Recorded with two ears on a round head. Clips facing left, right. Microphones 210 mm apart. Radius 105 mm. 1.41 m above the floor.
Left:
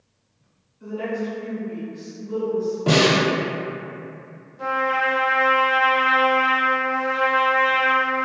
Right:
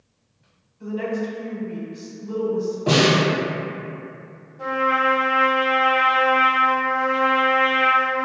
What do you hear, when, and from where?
0.8 s a woman speaking: 60° right (ahead or behind), 0.8 m
2.9 s a snare drum: 35° left (ahead or behind), 1.4 m
4.6 s a trumpet: 10° left (ahead or behind), 0.5 m